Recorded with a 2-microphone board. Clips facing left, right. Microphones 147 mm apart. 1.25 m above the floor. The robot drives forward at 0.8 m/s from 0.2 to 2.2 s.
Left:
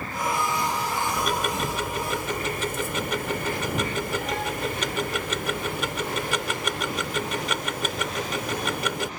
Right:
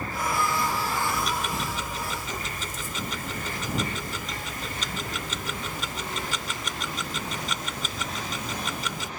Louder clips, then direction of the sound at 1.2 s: Left 3 dB; 65° left (ahead or behind).